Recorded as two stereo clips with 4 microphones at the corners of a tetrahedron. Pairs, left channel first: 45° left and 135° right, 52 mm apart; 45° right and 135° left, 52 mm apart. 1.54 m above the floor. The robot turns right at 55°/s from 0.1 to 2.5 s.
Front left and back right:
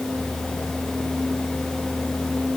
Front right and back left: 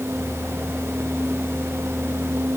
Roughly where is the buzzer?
I don't hear a buzzer.